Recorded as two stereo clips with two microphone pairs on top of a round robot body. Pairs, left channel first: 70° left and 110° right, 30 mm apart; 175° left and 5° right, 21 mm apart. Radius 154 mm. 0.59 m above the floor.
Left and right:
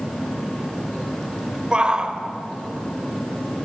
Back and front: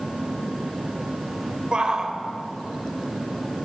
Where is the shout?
55° right, 3 m.